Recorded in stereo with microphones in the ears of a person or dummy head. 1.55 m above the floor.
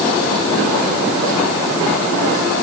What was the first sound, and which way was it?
Only background noise.